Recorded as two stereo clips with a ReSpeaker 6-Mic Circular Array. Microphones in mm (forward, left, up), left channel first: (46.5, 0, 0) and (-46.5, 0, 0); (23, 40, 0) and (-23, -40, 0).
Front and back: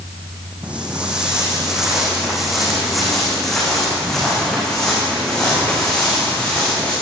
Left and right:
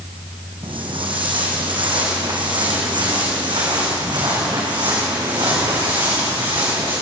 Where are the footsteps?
105° right, 6 m; by 6.9 s 80° right, 10.5 m.